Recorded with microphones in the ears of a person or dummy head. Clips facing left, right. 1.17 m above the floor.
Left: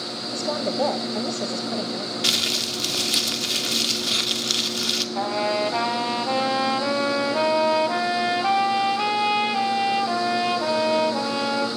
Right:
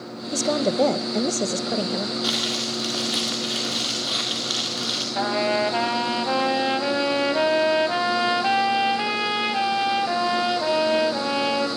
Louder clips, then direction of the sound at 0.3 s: Right 4 dB; 40° right (ahead or behind).